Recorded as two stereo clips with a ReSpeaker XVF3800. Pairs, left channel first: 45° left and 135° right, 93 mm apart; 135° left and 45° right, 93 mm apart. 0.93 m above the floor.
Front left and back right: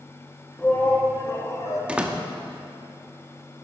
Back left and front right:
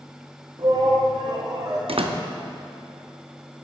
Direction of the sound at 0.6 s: 25° right.